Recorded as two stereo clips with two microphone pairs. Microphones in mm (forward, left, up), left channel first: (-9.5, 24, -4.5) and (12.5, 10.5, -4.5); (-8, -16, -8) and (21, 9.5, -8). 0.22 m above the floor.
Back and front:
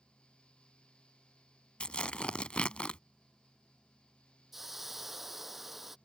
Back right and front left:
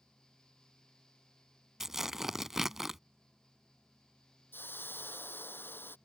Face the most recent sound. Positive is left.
turn(degrees=-115)